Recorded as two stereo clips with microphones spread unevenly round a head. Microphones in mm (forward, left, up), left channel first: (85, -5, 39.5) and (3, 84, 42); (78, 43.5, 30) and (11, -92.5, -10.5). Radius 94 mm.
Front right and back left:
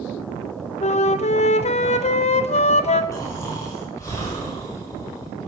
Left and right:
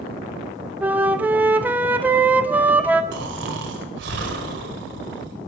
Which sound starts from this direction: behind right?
Snoring, at 3.1 s.